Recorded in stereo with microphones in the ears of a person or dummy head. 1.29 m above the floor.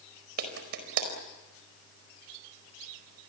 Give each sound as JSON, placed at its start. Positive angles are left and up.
{"t": 0.4, "sound": "a clap", "side_deg": -60, "distance_m": 4.5}